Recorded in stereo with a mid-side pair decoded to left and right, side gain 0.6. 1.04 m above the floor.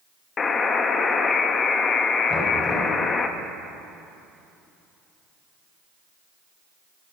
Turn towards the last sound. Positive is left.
turn(degrees=15)